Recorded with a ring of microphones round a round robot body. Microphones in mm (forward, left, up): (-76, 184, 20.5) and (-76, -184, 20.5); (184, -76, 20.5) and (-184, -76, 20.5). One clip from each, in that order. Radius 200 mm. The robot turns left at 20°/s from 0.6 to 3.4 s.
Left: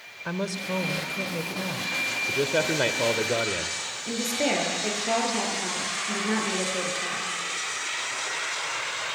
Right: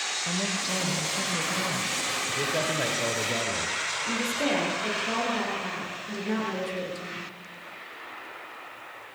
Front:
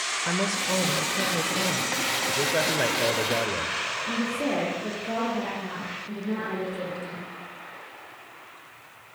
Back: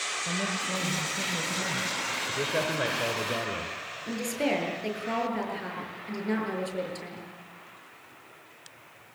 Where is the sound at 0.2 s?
50° left, 1.6 m; by 2.0 s 20° left, 1.6 m.